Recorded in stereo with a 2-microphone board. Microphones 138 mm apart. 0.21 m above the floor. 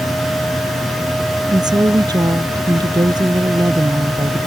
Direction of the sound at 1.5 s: 30° right (ahead or behind).